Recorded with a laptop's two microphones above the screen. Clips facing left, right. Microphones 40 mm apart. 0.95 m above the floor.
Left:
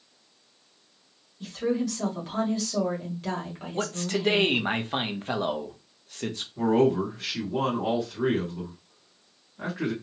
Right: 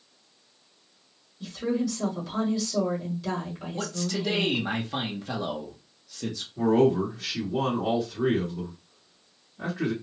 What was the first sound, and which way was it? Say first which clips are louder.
A woman speaking: left 1 dB; 50° left (ahead or behind).